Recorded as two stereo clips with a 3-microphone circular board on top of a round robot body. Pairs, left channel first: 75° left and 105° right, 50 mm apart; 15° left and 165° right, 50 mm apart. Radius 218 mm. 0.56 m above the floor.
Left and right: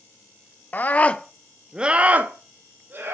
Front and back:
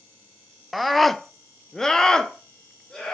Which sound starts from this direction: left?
A scream, at 0.7 s.